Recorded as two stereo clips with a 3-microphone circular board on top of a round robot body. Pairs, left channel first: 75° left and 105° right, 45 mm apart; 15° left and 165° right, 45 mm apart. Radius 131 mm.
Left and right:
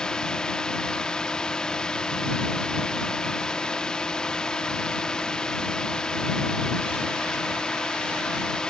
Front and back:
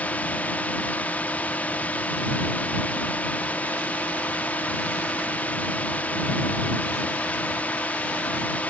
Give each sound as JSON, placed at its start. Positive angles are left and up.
{"t": 0.0, "sound": "a drone", "azimuth_deg": 15}